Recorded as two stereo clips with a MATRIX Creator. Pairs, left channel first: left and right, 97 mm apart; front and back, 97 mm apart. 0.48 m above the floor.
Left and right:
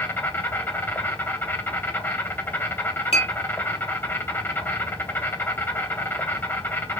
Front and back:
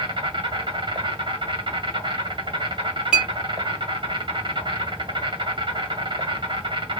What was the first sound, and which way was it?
An insect, 155° left.